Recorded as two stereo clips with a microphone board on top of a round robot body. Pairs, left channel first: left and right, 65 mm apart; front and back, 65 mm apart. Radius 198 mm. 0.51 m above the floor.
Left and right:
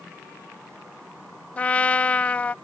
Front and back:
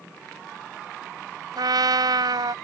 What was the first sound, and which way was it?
A trumpet, 160° left.